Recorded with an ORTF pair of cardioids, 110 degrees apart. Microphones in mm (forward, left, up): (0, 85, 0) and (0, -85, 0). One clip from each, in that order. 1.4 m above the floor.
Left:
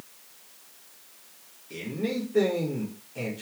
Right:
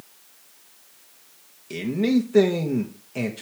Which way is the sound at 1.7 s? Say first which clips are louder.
Right 8 dB; 60° right.